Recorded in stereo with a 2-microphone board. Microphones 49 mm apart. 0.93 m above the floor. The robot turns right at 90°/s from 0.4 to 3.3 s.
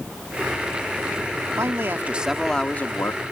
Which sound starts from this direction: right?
A man speaking, at 1.6 s.